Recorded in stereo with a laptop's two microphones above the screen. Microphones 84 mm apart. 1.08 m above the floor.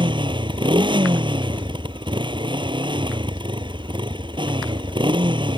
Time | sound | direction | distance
0.0 | a motorcycle | 70° right (ahead or behind) | ?